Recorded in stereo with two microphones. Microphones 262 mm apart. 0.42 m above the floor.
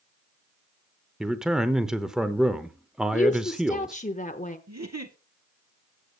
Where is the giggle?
75° right (ahead or behind), 1.2 m.